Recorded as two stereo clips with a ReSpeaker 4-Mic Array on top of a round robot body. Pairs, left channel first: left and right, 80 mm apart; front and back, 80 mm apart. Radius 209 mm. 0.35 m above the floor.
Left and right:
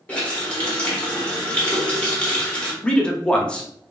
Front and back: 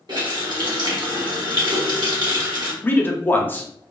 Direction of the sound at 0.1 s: 165° left.